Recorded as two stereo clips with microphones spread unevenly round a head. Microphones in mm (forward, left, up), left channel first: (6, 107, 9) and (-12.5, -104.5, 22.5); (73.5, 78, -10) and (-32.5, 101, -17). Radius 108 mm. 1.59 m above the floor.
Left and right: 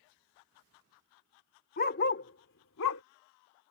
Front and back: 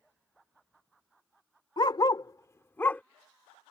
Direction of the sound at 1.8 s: 35° left.